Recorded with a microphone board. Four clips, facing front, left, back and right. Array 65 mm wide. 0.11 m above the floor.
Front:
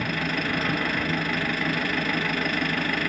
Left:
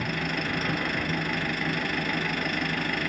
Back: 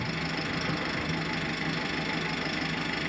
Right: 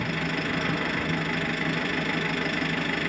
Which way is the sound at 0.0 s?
Straight ahead.